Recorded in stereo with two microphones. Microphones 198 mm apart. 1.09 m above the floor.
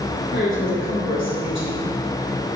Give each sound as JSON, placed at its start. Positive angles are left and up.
{"t": 0.3, "sound": "a woman speaking", "side_deg": 80, "distance_m": 3.0}